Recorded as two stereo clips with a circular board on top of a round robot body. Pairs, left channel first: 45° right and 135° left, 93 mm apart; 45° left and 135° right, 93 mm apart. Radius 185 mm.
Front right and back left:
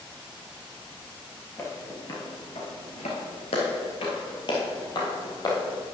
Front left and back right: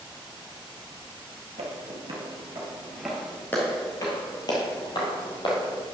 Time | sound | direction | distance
1.6 | footsteps | 110° right | 1.2 m